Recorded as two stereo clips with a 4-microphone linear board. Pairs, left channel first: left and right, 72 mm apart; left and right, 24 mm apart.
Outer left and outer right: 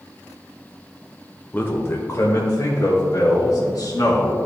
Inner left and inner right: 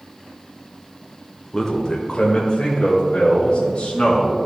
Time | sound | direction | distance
1.5 | a man speaking | 25° left (ahead or behind) | 1.0 m